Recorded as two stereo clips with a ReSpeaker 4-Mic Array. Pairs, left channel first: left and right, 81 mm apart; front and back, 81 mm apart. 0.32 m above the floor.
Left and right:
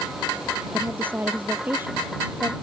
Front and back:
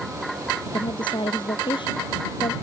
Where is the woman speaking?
20° right.